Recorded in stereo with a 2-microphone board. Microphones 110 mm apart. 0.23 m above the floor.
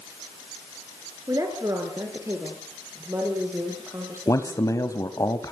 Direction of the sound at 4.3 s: 30° left (ahead or behind).